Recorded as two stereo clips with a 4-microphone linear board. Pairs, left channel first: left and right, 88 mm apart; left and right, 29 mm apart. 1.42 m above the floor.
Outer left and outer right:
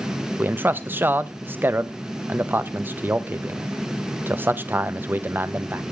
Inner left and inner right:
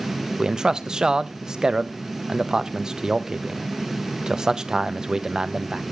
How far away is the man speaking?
About 0.8 m.